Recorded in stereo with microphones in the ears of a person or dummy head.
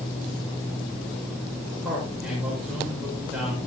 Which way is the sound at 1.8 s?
5° left (ahead or behind).